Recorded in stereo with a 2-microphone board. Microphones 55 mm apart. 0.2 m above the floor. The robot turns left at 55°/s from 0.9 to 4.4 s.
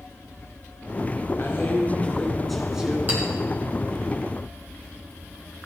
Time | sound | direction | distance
1.4 | a man speaking | 60° left | 2.5 m
3.1 | a clink | 30° right (ahead or behind) | 5 m